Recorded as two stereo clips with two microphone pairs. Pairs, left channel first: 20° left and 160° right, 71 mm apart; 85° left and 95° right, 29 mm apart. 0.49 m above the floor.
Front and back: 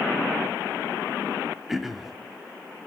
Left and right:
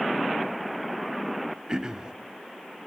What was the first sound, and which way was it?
Throat clearing, 80° right.